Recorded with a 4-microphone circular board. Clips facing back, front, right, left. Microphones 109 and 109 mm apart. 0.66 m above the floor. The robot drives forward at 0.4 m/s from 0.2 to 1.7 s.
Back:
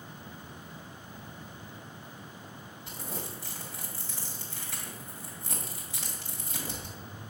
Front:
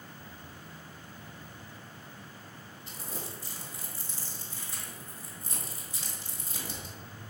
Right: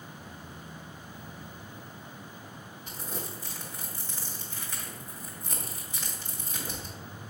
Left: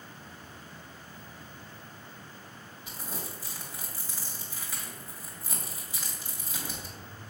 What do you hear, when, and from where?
2.9 s crumpling: 170° left, 2 m